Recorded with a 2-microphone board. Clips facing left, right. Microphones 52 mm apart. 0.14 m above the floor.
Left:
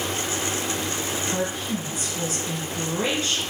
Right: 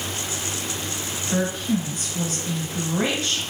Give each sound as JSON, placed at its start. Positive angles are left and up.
{"t": 1.3, "sound": "a woman speaking", "side_deg": -50, "distance_m": 1.6}